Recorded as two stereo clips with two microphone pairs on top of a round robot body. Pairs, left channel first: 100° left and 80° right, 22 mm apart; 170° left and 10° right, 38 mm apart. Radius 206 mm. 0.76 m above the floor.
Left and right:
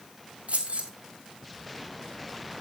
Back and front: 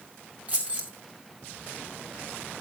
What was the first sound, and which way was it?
Keys jangling, 60° right.